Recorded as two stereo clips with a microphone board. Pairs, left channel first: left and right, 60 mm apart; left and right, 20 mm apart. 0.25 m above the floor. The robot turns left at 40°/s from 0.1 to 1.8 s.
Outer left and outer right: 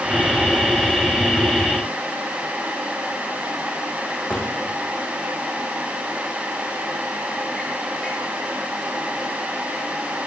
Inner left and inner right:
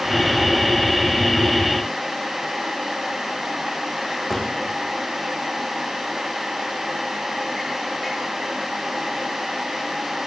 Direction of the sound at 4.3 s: 20° left (ahead or behind).